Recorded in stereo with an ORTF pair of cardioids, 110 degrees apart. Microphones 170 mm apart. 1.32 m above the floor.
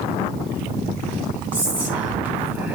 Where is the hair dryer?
No hair dryer in this recording.